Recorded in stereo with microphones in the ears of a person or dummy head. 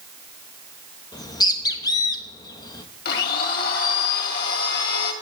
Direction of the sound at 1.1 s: 25° left (ahead or behind).